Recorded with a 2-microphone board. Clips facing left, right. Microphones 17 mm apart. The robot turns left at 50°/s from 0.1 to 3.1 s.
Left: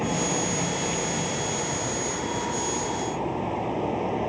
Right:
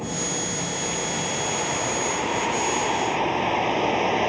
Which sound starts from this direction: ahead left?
A vehicle, at 0.0 s.